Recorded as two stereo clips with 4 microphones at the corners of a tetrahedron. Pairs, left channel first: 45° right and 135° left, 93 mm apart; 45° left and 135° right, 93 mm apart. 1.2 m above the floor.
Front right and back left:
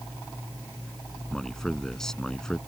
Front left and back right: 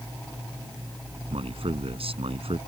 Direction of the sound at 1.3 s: 130° right.